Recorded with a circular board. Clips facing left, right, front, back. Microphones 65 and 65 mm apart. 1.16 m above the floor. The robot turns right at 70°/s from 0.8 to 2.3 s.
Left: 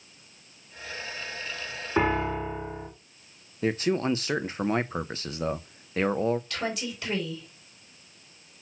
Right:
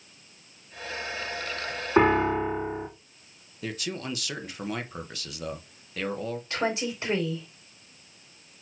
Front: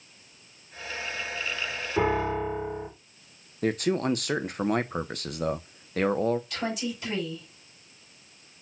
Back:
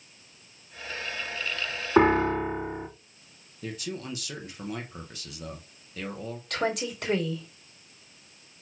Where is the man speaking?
30° left, 0.8 m.